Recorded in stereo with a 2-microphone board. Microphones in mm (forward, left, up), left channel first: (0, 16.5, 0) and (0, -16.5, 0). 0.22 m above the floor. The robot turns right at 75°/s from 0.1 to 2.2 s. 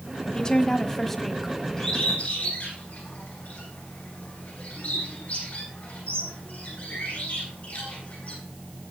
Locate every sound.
0.3 s a woman speaking: 25° left (ahead or behind), 1.2 m; by 1.6 s 5° right (ahead or behind), 1.2 m
1.8 s a bird: 15° left (ahead or behind), 8 m; by 8.3 s 50° left (ahead or behind), 8 m